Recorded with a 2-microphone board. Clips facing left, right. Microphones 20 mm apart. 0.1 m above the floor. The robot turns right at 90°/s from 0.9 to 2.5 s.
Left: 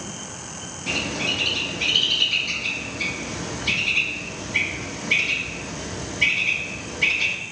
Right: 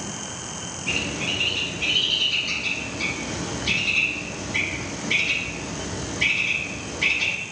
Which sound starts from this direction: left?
A bird, at 0.9 s.